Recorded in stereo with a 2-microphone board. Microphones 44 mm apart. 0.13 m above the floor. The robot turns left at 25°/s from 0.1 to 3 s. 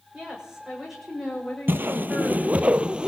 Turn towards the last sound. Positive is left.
turn(degrees=-25)  # may be behind; listen again after turning